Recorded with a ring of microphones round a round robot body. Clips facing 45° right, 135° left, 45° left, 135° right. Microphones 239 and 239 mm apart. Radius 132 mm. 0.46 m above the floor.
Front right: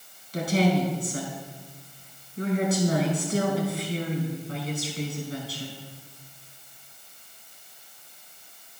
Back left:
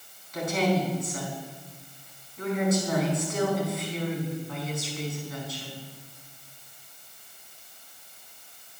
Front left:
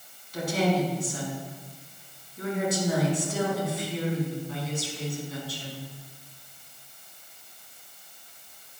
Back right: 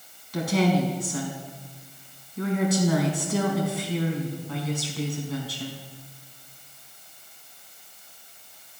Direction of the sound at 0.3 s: 105° right.